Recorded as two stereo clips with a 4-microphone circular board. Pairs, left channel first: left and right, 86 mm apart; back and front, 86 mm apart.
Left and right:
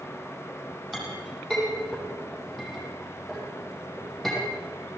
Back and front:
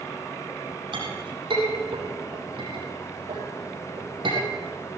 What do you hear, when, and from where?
0.9 s a clink: straight ahead, 6.5 m